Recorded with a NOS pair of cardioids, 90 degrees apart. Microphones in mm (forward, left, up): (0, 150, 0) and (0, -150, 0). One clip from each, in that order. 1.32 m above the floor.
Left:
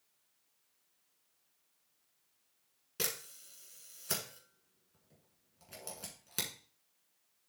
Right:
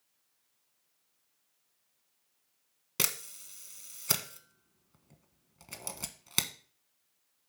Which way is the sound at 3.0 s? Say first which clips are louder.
Right 5 dB; 60° right.